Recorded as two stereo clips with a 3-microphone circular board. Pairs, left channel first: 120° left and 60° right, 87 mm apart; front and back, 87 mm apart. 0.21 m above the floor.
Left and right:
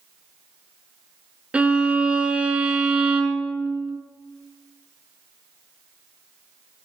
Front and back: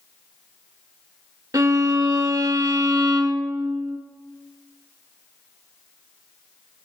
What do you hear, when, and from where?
1.5 s a violin: 135° right, 0.6 m